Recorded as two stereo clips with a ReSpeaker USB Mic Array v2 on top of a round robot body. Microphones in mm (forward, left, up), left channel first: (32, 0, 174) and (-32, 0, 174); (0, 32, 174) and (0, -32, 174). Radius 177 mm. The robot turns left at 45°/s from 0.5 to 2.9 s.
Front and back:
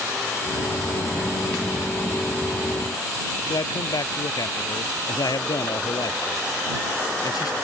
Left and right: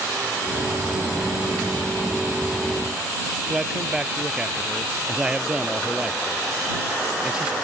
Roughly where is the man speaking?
Ahead.